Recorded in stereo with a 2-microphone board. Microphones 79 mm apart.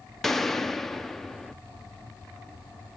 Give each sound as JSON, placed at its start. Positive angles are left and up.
{"t": 0.2, "sound": "a gunshot", "side_deg": 5, "distance_m": 0.5}